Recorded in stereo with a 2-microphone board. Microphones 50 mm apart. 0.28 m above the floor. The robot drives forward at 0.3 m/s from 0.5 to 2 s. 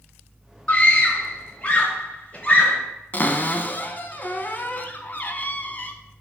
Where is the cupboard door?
35° left (ahead or behind), 0.7 m.